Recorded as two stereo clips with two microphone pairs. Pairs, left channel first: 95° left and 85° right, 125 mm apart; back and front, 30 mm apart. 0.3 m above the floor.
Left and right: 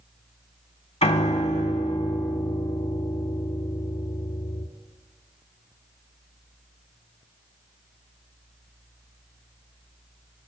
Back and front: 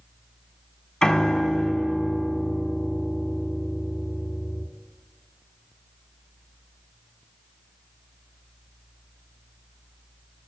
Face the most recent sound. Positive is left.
turn(degrees=125)